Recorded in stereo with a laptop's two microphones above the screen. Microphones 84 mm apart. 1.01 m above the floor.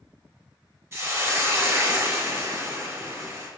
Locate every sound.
0.9 s a hiss: 25° right (ahead or behind), 1.5 m